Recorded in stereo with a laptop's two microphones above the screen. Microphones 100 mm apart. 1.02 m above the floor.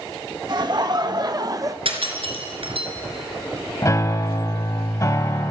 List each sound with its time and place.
0.5 s laughter: 45° right (ahead or behind), 1.5 m; by 1.8 s 35° right (ahead or behind), 0.7 m
1.9 s breaking glass: 65° right (ahead or behind), 3 m
3.8 s a piano: 30° left (ahead or behind), 0.9 m